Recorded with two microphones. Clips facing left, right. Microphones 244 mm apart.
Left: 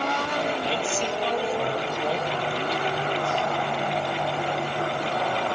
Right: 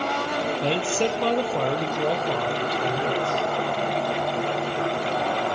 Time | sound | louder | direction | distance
0.6 | a man speaking | right 4 dB | 65° right (ahead or behind) | 4.5 m